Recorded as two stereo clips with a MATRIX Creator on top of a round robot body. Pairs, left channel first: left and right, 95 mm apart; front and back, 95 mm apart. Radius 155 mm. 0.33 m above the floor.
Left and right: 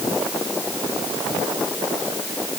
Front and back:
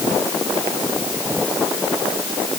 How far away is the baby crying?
I don't hear a baby crying.